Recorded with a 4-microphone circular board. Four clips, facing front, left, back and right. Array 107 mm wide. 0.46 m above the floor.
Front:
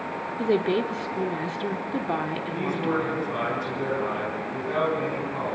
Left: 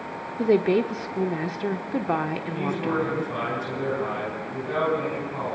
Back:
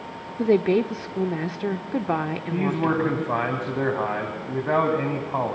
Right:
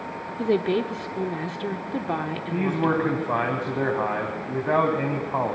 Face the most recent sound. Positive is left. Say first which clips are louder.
# right 5 dB, back 4 dB
turn(degrees=-135)